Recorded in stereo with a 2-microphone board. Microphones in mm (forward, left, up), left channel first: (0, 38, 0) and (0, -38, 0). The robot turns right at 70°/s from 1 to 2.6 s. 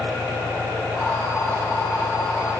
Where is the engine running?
15° left; by 2.6 s 130° left.